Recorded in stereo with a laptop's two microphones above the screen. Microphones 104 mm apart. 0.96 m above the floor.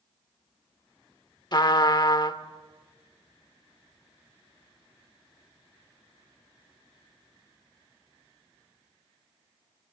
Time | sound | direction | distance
1.5 | a trumpet | 45° left (ahead or behind) | 1.3 m